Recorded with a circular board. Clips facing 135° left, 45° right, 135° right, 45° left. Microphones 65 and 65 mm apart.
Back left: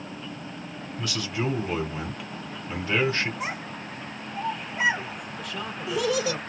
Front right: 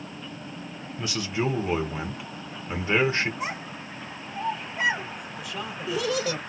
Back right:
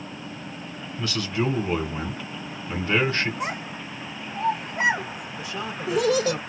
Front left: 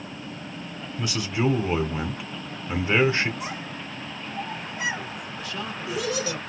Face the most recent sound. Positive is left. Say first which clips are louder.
# even, back right 2 dB
turn(degrees=-125)